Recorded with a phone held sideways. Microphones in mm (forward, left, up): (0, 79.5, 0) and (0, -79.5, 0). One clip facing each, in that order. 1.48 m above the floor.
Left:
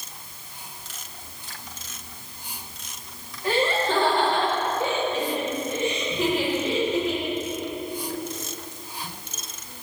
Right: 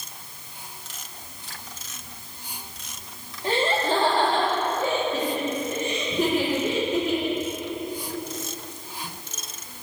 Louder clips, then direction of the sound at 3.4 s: Even; 25° right (ahead or behind).